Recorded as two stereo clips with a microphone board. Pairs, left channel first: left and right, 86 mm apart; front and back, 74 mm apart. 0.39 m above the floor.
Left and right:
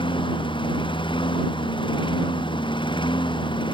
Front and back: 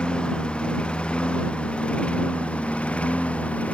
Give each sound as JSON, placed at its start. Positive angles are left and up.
{"t": 0.0, "sound": "a lawn mower", "azimuth_deg": 75}